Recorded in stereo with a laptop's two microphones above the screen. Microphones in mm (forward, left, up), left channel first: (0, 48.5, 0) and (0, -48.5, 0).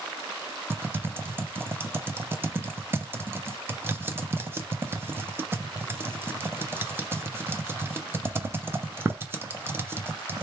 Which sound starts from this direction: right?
Typing on a keyboard, at 0.7 s.